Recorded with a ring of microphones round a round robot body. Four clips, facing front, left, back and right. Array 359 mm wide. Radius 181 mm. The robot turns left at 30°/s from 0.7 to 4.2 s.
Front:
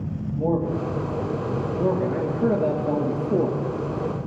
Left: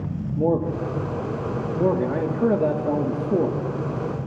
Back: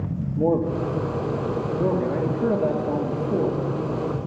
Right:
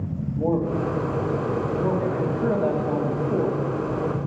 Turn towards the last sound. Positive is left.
turn(degrees=30)